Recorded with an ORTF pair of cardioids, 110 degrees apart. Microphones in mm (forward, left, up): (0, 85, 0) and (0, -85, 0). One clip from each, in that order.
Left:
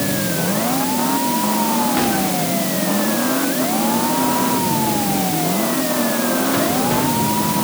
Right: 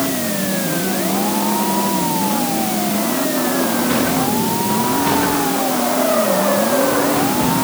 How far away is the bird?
I don't hear a bird.